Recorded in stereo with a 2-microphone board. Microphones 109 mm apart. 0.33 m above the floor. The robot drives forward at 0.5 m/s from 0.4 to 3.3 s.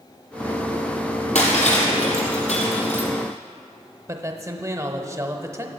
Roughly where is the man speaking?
Right.